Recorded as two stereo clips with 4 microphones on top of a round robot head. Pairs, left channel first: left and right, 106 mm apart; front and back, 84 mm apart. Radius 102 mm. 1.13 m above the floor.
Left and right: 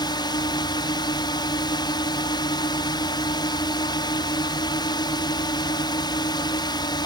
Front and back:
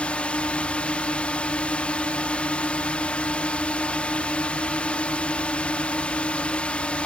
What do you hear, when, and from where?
0.0 s a drone: 75° left